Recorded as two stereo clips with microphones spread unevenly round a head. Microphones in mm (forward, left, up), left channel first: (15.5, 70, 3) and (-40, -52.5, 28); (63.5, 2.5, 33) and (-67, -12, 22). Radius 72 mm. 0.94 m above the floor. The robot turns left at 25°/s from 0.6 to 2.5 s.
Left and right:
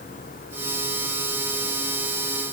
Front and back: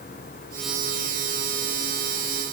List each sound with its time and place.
Only background noise.